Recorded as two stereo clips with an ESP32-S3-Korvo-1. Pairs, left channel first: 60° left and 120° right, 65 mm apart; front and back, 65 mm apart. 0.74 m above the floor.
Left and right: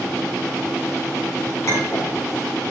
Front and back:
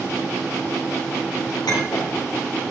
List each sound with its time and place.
1.7 s a clink: 15° left, 5 m